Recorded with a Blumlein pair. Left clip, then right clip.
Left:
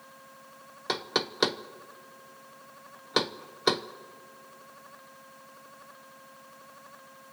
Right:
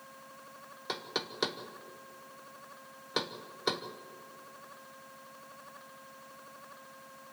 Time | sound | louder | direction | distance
0.9 | knocking | left 7 dB | 20° left | 0.6 m